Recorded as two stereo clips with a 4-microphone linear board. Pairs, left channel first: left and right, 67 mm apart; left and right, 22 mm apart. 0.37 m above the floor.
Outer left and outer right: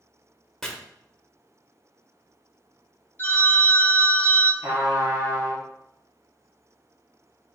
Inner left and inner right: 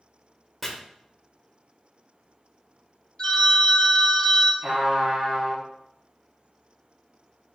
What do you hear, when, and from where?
0.6 s chopping: 10° left (ahead or behind), 0.8 m
3.2 s a phone ringing: 30° left (ahead or behind), 0.9 m
4.6 s a trumpet: 50° right (ahead or behind), 2 m